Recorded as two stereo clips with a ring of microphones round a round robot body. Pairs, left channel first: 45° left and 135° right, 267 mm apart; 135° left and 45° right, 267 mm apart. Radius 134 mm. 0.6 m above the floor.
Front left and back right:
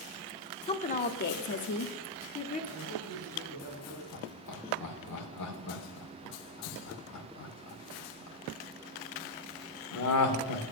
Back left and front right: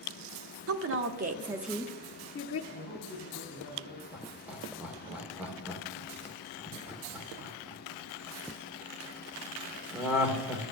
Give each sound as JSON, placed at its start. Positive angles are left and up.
{"t": 0.7, "sound": "a woman speaking", "azimuth_deg": -20, "distance_m": 1.2}
{"t": 2.7, "sound": "a man speaking", "azimuth_deg": -15, "distance_m": 4.5}
{"t": 4.1, "sound": "laughter", "azimuth_deg": 40, "distance_m": 1.9}